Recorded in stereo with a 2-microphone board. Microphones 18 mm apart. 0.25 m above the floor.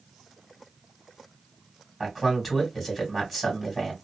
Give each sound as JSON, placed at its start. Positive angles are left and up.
{"t": 2.0, "sound": "a man speaking", "side_deg": 10, "distance_m": 1.9}